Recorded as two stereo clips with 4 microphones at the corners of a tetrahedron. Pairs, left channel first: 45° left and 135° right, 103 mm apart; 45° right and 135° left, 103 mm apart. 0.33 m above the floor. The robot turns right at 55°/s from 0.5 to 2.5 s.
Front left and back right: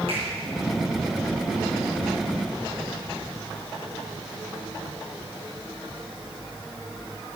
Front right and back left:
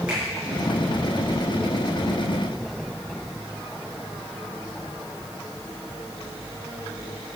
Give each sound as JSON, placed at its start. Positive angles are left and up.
{"t": 0.1, "sound": "a finger snap", "azimuth_deg": -145, "distance_m": 4.5}